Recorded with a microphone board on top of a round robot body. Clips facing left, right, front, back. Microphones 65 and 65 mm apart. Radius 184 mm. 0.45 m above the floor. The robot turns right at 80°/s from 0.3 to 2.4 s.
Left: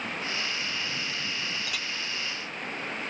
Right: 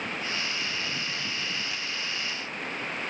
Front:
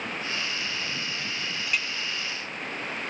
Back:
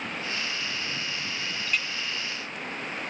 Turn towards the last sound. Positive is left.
turn(degrees=135)